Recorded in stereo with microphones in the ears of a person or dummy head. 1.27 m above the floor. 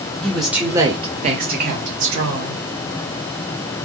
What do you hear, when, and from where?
0.2 s a woman speaking: 5° left (ahead or behind), 0.8 m; by 2.6 s 70° right (ahead or behind), 1.1 m